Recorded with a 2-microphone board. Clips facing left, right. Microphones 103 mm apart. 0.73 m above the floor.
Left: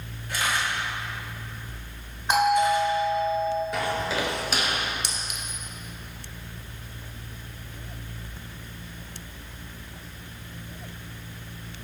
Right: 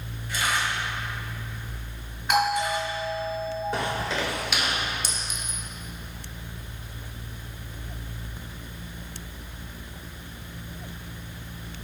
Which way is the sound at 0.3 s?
60° left (ahead or behind).